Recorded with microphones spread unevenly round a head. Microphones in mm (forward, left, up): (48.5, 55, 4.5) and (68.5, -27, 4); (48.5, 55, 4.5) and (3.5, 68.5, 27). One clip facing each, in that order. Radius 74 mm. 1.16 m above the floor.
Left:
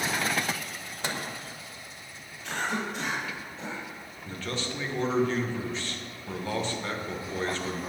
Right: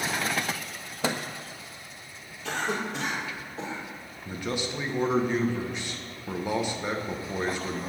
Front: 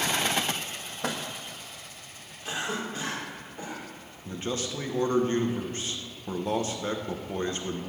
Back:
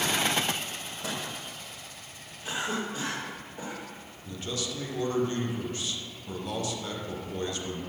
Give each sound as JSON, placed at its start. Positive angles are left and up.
{"t": 1.0, "sound": "a microwave", "azimuth_deg": -85, "distance_m": 0.9}
{"t": 2.4, "sound": "a cough", "azimuth_deg": -105, "distance_m": 4.0}
{"t": 4.2, "sound": "a man speaking", "azimuth_deg": 0, "distance_m": 1.3}